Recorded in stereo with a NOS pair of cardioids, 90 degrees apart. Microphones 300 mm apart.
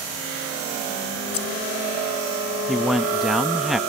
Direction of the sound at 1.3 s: 50° left.